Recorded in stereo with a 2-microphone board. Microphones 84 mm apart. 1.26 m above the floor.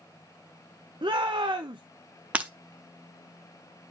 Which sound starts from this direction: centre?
Breaking glass, at 2.3 s.